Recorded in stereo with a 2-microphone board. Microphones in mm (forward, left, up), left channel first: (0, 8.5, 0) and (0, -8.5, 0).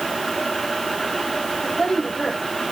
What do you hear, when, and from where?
1.6 s a woman speaking: 55° left (ahead or behind), 5.5 m